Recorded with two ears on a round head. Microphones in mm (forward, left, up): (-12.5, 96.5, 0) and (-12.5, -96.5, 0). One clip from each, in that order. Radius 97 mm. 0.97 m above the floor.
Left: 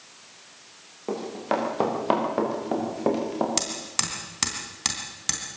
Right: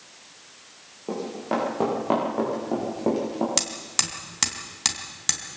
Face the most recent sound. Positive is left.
turn(degrees=-15)  # may be behind; listen again after turning